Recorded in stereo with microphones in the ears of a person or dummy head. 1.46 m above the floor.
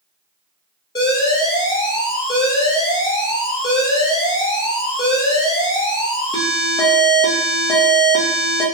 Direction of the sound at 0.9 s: 20° left (ahead or behind).